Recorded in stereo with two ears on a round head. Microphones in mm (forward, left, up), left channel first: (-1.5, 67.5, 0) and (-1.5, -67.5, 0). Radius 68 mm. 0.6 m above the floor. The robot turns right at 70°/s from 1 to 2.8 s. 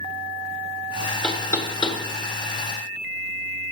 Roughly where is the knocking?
Centre.